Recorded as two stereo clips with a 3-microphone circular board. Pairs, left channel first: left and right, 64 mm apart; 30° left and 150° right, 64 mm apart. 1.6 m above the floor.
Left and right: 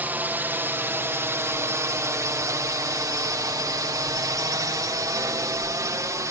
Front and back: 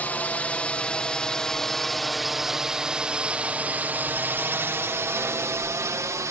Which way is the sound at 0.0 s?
30° right.